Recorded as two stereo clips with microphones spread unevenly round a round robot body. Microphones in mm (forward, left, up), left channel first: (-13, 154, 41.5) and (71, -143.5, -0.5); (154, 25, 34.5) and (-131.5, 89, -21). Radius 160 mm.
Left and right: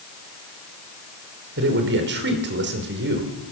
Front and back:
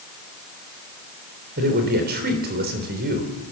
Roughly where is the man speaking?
Behind right.